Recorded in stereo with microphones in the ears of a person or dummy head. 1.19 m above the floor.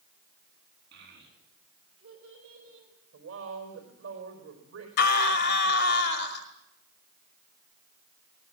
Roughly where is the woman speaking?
Right.